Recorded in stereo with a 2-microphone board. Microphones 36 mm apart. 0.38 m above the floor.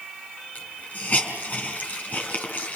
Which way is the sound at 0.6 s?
40° left (ahead or behind).